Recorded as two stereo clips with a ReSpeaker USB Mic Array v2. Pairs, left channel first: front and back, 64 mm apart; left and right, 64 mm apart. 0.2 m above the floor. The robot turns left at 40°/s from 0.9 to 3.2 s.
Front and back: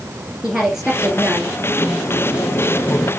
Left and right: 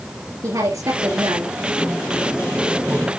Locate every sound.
0.4 s a woman speaking: 100° right, 3 m; by 1.6 s 125° right, 3 m
1.8 s a sliding door: 25° left, 4 m; by 3.1 s 30° right, 4 m